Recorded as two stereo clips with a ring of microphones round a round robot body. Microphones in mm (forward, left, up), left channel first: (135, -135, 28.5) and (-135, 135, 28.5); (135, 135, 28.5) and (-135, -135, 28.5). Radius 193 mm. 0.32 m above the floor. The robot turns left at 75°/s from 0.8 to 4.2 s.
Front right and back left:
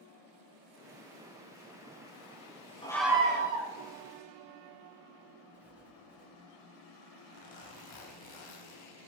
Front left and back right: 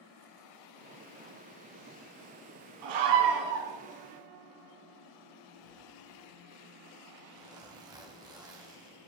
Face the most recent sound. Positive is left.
turn(degrees=-55)